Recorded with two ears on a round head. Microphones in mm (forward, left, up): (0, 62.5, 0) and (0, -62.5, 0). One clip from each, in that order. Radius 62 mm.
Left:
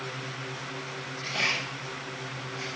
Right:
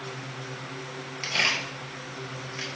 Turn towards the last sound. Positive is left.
turn(degrees=-45)  # may be behind; listen again after turning